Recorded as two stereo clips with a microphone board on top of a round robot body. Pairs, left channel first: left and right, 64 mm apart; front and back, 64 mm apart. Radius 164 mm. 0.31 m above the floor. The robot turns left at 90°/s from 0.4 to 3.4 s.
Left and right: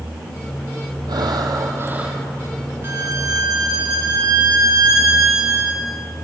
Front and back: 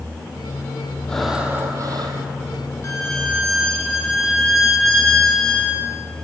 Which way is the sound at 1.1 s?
75° right.